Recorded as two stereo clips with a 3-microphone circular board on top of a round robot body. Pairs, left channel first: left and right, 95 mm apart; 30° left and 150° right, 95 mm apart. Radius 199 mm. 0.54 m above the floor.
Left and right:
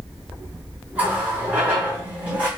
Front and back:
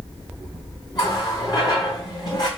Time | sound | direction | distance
0.9 | a running tap | 15° right | 5.5 m